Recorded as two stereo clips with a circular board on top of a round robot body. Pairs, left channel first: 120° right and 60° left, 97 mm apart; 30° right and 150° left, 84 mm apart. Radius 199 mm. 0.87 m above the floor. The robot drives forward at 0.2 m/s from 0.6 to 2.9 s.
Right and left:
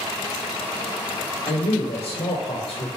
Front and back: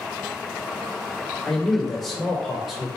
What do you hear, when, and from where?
1.4 s a man speaking: 115° right, 1.1 m; by 2.9 s 125° right, 1.2 m